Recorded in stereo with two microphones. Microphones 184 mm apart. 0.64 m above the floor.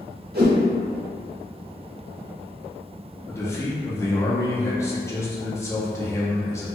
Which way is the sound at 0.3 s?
60° right (ahead or behind).